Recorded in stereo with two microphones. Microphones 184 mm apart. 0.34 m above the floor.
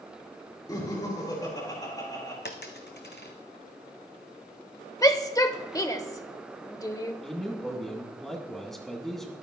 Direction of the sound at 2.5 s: 65° left (ahead or behind).